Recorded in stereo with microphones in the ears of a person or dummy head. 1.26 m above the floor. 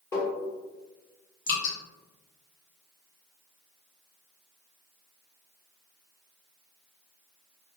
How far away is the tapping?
About 1.0 m.